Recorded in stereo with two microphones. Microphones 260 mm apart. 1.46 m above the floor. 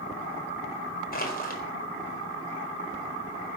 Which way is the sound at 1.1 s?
35° left (ahead or behind).